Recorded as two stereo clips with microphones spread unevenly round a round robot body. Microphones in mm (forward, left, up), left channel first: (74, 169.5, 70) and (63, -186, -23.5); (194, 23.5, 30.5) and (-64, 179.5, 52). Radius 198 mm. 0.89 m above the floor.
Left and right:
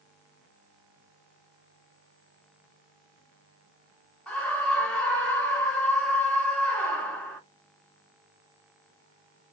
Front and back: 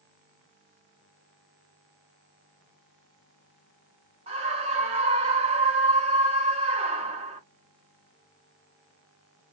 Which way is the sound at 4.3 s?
155° right.